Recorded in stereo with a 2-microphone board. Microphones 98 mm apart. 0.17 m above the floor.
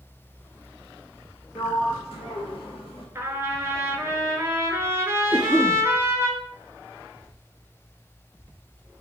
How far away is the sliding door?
About 1.0 m.